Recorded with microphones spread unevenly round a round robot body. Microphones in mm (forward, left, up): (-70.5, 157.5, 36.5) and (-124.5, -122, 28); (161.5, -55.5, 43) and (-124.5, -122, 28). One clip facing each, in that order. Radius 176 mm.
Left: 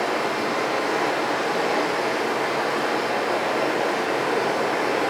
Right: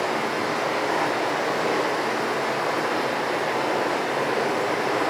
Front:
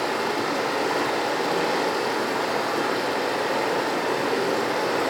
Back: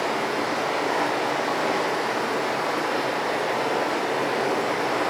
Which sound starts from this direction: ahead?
Running water, at 0.0 s.